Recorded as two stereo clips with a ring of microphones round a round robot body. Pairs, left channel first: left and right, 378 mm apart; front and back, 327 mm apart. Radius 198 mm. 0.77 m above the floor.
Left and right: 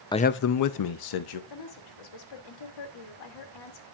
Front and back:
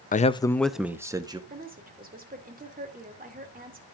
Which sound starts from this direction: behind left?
A woman speaking, at 1.5 s.